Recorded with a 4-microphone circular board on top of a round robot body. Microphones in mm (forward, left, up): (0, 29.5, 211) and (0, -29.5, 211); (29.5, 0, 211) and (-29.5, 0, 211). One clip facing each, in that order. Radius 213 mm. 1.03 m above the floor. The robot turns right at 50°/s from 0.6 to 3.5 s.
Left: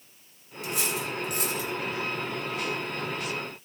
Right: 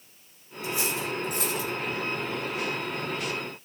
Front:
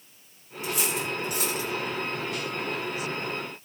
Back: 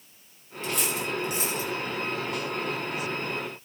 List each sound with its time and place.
0.6 s cutlery clinking: 80° left, 2.5 m; by 1.7 s 130° left, 2.5 m